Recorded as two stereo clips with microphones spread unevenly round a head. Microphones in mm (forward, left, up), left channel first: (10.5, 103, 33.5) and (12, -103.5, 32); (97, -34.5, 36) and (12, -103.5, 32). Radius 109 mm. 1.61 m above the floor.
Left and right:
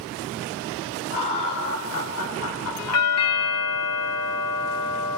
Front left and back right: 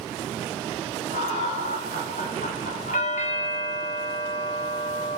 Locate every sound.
1.1 s laughter: 60° left, 4 m; by 3.6 s 110° left, 1.7 m
2.9 s a doorbell: 85° left, 1.4 m